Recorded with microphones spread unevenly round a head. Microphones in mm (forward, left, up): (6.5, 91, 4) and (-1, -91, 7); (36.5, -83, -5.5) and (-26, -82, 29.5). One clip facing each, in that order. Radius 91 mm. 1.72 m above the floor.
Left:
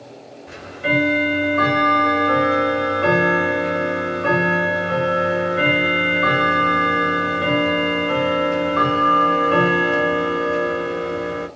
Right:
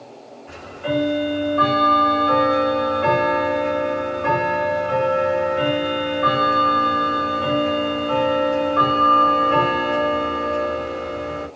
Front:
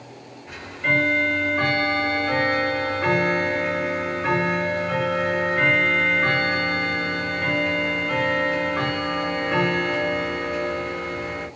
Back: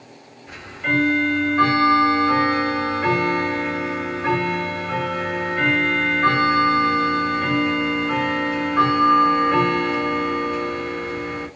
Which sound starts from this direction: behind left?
Ticking, at 0.5 s.